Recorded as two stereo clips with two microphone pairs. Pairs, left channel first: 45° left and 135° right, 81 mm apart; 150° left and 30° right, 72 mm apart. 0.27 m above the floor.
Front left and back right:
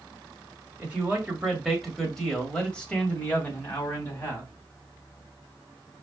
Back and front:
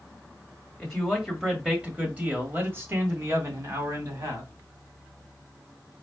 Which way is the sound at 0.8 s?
140° right.